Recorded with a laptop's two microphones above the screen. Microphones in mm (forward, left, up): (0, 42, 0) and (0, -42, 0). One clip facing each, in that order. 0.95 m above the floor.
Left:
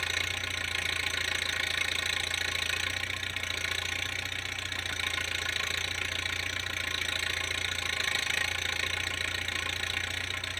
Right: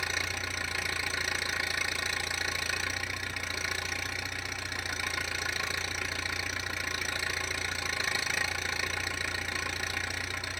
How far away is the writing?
I don't hear writing.